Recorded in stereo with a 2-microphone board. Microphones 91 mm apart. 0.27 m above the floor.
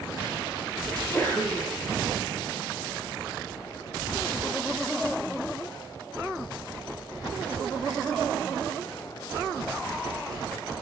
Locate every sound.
0.9 s a sneeze: 20° left (ahead or behind), 9.5 m